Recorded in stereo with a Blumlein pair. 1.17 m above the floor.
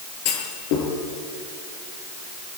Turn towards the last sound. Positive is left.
turn(degrees=45)